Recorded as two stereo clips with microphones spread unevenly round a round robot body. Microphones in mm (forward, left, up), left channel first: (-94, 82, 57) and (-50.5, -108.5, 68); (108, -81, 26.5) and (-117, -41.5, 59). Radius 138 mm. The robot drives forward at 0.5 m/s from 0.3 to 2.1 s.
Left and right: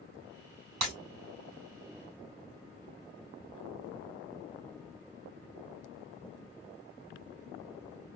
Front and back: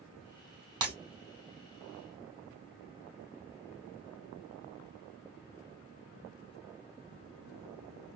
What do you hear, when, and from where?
0.8 s breaking glass: 120° right, 3 m